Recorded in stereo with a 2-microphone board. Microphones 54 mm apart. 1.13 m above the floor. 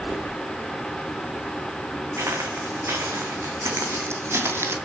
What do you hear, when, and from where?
2.2 s footsteps: 70° right (ahead or behind), 3 m; by 4.8 s 50° right (ahead or behind), 1.7 m